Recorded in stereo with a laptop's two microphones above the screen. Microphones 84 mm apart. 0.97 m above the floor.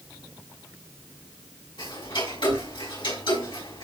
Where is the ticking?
75° left (ahead or behind), 5.5 m.